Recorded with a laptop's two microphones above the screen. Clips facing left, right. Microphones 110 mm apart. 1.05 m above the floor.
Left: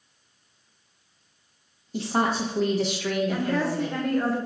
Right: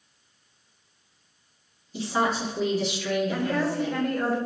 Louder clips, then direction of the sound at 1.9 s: Left 1 dB; 50° left (ahead or behind).